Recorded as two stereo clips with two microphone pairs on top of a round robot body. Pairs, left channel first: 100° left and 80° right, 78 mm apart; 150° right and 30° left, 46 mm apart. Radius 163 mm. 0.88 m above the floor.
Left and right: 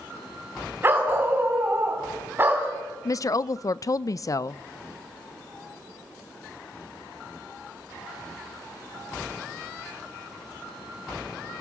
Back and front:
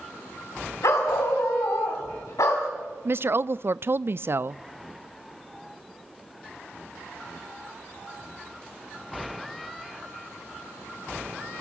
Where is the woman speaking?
55° left, 0.5 m.